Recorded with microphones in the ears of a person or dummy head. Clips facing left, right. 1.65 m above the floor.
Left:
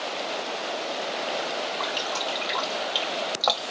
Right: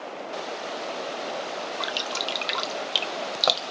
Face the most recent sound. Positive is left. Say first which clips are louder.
# left 2 dB
turn(degrees=-30)  # may be behind; listen again after turning